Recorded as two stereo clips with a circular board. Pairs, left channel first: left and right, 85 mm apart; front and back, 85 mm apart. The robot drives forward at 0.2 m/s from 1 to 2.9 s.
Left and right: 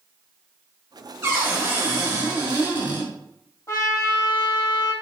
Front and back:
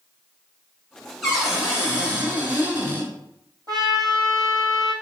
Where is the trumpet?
145° left, 1.2 m.